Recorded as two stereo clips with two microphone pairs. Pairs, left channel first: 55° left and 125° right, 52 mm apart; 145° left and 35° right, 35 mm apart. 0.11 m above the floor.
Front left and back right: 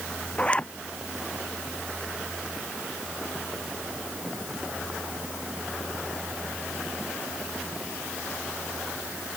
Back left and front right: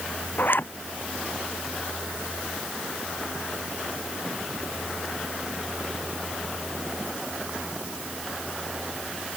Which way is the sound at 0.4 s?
120° left.